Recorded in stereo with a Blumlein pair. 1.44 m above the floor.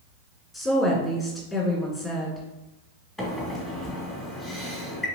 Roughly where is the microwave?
Ahead.